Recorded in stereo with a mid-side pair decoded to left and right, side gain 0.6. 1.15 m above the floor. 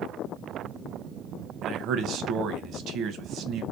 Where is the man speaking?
55° right, 0.7 m.